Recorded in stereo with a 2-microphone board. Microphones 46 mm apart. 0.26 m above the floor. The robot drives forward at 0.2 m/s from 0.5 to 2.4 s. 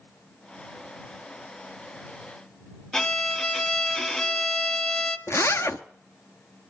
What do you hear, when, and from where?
2.9 s a violin: 15° left (ahead or behind), 0.6 m
5.3 s a zipper: 70° left (ahead or behind), 0.7 m